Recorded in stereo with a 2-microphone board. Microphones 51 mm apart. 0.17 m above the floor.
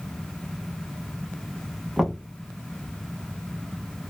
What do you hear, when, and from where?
2.0 s knocking: centre (ahead or behind), 0.7 m